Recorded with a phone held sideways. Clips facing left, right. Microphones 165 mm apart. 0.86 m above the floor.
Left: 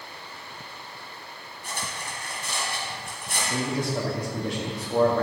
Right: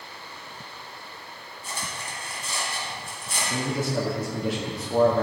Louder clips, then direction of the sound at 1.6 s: Left 1 dB; 70° left (ahead or behind).